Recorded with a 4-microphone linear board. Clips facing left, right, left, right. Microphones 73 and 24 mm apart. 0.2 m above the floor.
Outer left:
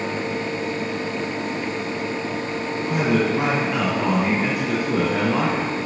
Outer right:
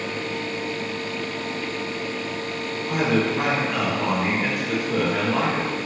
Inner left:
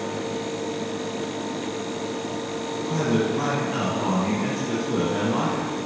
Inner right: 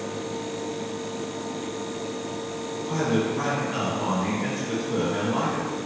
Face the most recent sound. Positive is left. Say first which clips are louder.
# outer left 1 dB, inner left 1 dB
turn(degrees=10)  # may be behind; listen again after turning